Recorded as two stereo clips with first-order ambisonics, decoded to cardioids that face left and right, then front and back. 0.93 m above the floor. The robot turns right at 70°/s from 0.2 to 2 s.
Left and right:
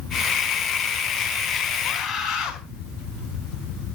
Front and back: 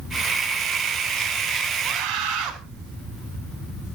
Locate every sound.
1.8 s a scream: 130° left, 4.5 m; by 2.5 s 145° left, 4.5 m